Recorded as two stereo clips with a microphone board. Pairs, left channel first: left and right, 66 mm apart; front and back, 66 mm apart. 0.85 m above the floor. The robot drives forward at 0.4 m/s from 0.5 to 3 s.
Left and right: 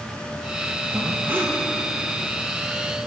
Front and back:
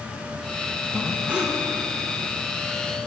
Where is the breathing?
105° right, 1.0 m; by 1.6 s 125° right, 1.1 m.